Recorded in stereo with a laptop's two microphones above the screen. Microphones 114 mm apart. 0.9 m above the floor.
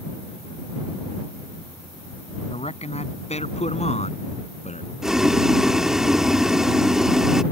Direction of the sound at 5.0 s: 5° right (ahead or behind).